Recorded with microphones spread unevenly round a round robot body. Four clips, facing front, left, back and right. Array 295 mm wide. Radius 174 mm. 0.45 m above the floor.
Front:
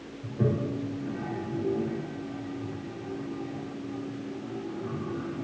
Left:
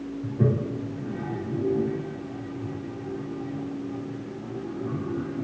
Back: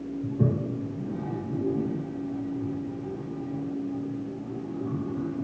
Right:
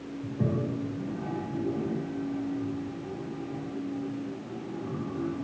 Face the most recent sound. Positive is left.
turn(degrees=170)